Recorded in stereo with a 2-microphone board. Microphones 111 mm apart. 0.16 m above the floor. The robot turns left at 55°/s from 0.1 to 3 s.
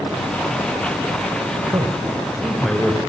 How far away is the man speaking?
About 2 m.